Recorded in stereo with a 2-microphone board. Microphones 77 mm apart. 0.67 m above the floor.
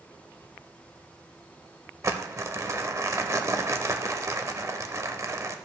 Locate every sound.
2.0 s crumpling: 40° right (ahead or behind), 0.7 m